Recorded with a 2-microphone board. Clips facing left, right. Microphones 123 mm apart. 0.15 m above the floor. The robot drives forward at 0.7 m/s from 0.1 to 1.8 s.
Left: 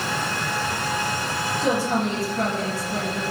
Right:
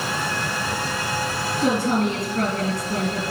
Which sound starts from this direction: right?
A woman speaking, at 1.6 s.